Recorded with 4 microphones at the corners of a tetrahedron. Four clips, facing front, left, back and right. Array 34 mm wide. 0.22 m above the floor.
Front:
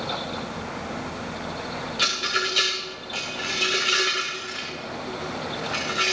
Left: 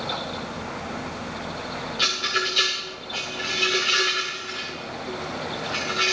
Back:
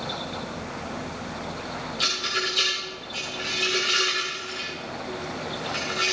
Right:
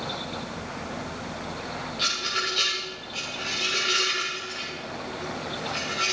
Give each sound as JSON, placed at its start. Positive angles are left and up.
{"t": 2.0, "sound": "a rattle", "azimuth_deg": 25, "distance_m": 6.5}